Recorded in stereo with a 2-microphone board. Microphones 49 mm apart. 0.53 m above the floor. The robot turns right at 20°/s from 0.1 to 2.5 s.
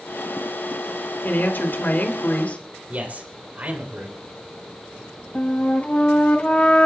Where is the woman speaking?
50° left (ahead or behind), 2.5 m; by 2.6 s 30° left (ahead or behind), 2.5 m.